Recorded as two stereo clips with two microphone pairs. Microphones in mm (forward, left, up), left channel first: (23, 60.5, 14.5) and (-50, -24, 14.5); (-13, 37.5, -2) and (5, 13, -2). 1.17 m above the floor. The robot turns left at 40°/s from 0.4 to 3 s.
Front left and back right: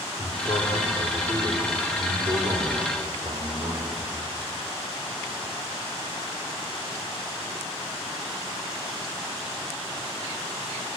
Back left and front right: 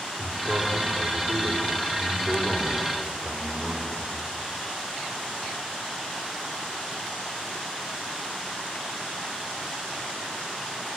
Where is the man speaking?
45° right, 4.5 m; by 4.1 s 150° right, 4.5 m.